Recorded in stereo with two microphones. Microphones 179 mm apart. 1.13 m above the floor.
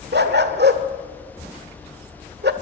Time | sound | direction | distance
0.1 | a dog barking | 70° right (ahead or behind) | 1.6 m